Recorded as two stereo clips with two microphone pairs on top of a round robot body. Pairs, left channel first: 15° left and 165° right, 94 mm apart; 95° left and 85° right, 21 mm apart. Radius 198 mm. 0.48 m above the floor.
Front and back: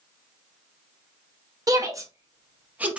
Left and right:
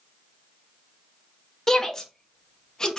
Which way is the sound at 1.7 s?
165° left.